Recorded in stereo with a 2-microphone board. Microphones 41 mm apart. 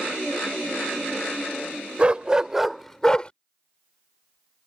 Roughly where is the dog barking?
Right.